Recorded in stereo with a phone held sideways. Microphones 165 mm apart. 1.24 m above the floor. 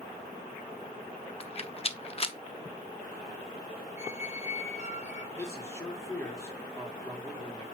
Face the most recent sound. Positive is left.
turn(degrees=15)  # may be behind; listen again after turning